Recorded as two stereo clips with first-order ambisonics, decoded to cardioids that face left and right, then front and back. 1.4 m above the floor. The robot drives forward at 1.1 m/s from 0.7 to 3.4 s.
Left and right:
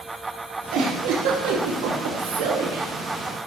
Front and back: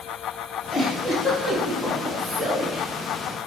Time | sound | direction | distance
0.7 | a giggle | 55° right | 3 m